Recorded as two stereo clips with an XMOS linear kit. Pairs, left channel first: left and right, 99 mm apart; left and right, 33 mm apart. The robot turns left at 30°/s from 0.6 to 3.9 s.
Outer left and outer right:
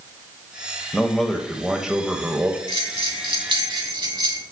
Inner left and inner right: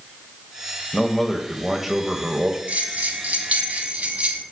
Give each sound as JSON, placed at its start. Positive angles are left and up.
{"t": 0.9, "sound": "a man speaking", "side_deg": 5, "distance_m": 1.4}
{"t": 2.7, "sound": "a bell", "azimuth_deg": -80, "distance_m": 2.5}